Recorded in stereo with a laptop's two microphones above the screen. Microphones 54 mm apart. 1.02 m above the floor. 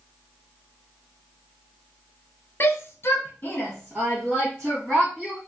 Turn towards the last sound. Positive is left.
turn(degrees=5)  # may be behind; listen again after turning